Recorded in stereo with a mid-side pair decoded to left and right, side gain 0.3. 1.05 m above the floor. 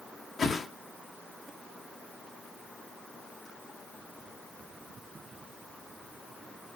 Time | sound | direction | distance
0.4 | a whoosh | 65° left | 1.0 m